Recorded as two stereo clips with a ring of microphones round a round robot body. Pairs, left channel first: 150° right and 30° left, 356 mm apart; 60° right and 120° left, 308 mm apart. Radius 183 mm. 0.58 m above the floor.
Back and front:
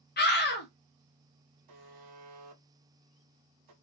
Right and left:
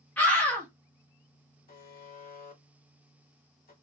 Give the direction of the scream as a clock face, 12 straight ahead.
5 o'clock.